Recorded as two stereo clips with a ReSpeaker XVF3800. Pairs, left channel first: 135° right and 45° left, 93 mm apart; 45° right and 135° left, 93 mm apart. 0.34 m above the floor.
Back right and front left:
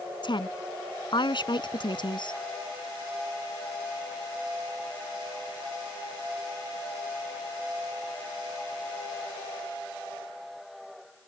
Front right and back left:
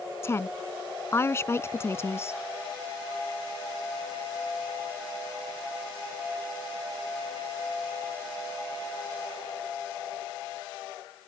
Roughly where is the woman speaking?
Right.